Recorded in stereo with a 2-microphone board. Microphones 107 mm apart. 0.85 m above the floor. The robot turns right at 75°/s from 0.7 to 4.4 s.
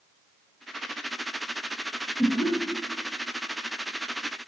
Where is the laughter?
35° left (ahead or behind), 0.8 m; by 2.5 s 45° left (ahead or behind), 0.8 m.